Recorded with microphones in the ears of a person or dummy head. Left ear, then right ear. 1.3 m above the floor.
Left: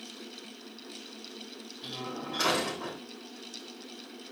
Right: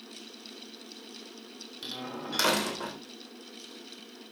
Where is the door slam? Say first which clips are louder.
Even; 85° right, 3.5 m.